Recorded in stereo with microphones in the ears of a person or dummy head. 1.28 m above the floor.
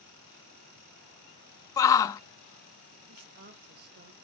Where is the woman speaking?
55° right (ahead or behind), 1.2 m.